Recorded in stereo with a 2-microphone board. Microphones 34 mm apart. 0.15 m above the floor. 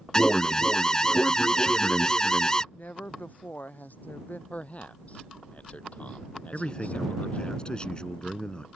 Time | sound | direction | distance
0.1 | an alarm | 20° left (ahead or behind) | ?
2.7 | a woman speaking | 65° left (ahead or behind) | ?
4.5 | a man speaking | 45° left (ahead or behind) | ?
6.5 | a man speaking | 30° left (ahead or behind) | ?